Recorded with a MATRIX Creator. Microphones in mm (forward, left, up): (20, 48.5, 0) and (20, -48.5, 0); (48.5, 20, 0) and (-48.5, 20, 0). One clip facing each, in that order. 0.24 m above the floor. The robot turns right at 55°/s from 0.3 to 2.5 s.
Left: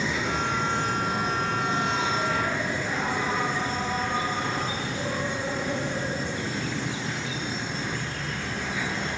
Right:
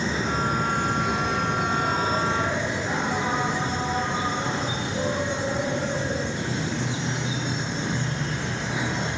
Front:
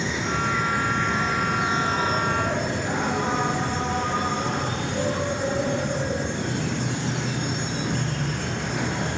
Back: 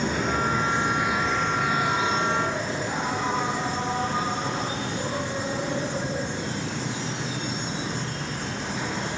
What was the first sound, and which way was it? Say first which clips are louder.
An insect: right 2 dB, back 1 dB; 140° right.